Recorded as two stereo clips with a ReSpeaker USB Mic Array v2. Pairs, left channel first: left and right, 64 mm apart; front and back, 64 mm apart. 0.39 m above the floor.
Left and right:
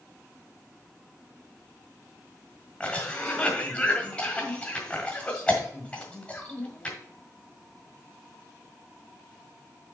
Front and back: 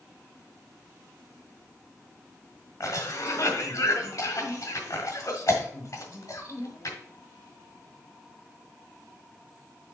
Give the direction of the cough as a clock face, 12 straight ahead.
11 o'clock.